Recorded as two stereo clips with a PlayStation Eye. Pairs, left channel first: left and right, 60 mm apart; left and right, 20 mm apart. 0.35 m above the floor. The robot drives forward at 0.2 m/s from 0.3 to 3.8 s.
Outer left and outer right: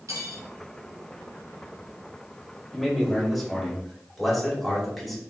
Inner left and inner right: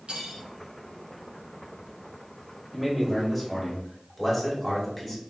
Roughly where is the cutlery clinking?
Right.